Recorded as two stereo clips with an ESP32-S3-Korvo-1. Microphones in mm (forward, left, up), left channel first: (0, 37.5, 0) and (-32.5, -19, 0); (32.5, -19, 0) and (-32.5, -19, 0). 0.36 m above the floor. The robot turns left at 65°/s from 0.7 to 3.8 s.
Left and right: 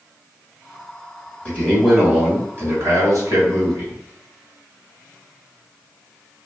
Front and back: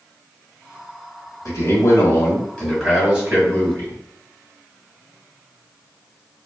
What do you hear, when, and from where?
1.4 s a man speaking: straight ahead, 1.8 m; by 4.0 s 150° right, 1.8 m